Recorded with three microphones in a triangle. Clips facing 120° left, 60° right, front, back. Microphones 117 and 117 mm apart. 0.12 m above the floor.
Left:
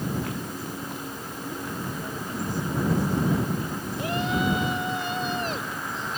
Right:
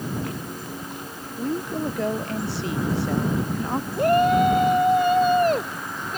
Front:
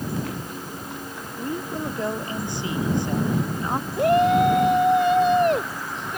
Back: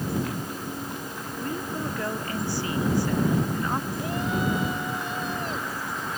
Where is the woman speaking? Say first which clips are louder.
Right 9 dB, front 2 dB; 70° right.